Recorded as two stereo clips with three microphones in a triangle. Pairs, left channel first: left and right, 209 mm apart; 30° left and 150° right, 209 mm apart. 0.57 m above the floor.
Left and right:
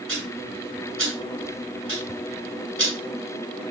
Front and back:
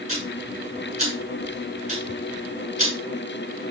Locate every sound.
0.1 s ticking: 95° right, 7.5 m